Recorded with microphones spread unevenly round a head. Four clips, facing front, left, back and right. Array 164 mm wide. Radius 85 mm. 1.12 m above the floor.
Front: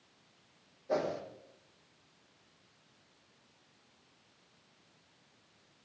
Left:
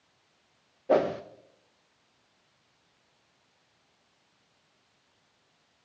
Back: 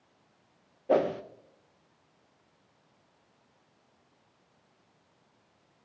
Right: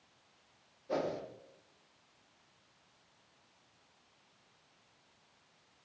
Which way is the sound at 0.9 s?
125° left.